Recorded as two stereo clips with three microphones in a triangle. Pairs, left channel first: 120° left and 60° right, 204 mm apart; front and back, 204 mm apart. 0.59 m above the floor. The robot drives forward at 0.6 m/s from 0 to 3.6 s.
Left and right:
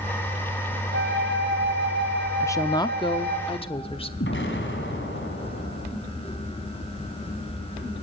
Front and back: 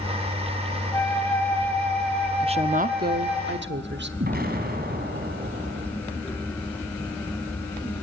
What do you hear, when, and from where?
0.9 s a flute: 75° right, 4.5 m; by 3.4 s 95° right, 4.5 m
2.4 s a woman speaking: straight behind, 0.6 m
4.2 s an explosion: 140° left, 3.5 m